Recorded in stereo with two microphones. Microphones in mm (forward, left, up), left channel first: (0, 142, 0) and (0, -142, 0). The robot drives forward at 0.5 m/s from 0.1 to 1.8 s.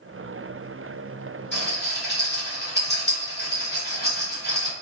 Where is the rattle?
40° left (ahead or behind), 1.3 m; by 4.7 s 35° left (ahead or behind), 1.4 m.